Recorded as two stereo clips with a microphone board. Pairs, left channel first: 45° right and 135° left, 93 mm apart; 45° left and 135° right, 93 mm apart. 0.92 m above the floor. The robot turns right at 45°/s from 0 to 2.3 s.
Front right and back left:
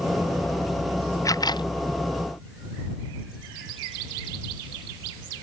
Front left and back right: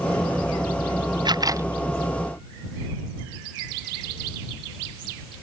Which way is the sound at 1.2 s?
95° right.